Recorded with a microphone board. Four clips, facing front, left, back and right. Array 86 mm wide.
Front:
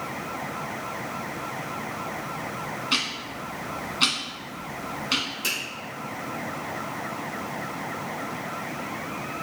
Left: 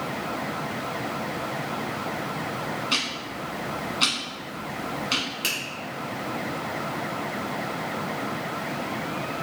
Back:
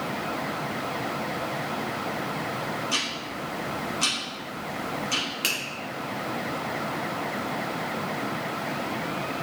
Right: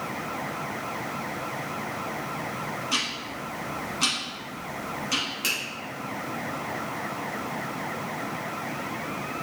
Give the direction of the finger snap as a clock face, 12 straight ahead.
6 o'clock.